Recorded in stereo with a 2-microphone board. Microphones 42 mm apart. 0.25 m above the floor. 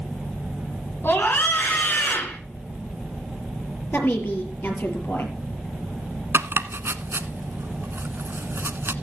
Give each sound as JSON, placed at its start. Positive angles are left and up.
{"t": 1.0, "sound": "a scream", "side_deg": 55, "distance_m": 3.5}
{"t": 3.9, "sound": "a woman speaking", "side_deg": 55, "distance_m": 5.0}
{"t": 6.3, "sound": "chopping", "side_deg": -70, "distance_m": 0.9}